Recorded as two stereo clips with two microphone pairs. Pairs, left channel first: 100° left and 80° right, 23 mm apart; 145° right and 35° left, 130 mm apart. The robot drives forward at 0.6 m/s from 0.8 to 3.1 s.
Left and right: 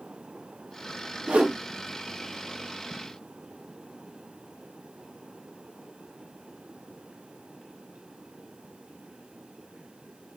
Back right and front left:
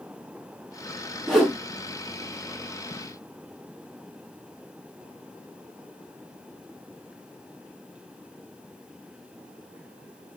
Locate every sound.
1.3 s a whoosh: 50° right, 1.5 m; by 1.6 s 60° right, 1.4 m